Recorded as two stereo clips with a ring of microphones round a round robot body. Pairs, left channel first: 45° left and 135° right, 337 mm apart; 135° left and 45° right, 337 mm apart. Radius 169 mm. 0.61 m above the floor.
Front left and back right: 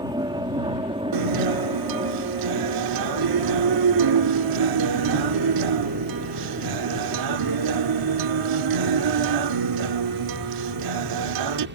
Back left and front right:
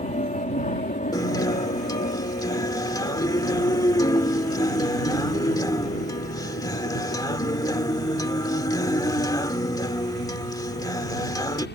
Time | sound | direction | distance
0.0 | an aircraft | 165° left | ?
1.1 | a guitar | 145° right | ?